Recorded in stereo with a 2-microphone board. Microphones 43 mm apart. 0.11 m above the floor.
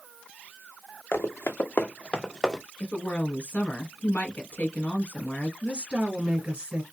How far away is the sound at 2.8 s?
About 1.9 m.